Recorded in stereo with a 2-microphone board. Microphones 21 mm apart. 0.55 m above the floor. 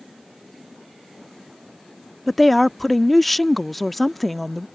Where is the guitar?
I don't hear a guitar.